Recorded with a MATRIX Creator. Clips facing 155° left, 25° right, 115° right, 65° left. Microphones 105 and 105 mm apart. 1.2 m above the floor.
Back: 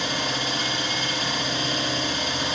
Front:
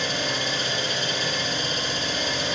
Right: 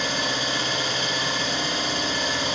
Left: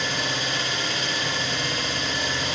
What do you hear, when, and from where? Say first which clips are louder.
0.0 s an engine running: even, right 1 dB; straight behind, 2.0 m